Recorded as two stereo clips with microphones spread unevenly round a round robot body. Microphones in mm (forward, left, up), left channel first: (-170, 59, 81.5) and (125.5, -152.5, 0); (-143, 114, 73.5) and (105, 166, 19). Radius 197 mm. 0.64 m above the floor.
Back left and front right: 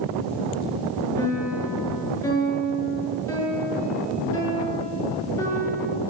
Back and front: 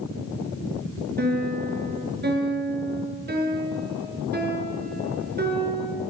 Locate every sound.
1.2 s a piano: 65° left, 7 m